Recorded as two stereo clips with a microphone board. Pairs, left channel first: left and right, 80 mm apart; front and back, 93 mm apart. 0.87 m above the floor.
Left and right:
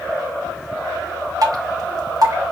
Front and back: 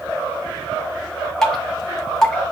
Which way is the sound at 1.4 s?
85° right.